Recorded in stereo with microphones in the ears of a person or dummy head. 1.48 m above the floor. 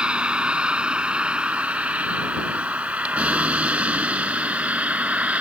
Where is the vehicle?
5° right (ahead or behind); by 5.4 s 10° right (ahead or behind).